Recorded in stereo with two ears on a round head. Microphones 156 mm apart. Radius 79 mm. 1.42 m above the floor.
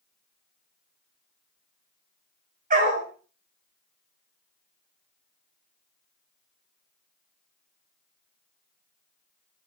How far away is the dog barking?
About 3 m.